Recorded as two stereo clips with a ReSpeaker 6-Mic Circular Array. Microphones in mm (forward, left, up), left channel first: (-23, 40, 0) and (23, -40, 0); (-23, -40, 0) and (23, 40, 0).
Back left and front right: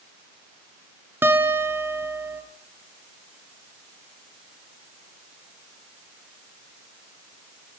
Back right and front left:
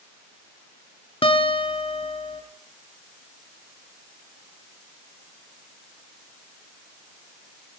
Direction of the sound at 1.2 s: 125° right.